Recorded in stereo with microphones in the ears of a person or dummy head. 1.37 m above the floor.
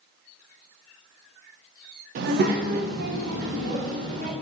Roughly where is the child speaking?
Right.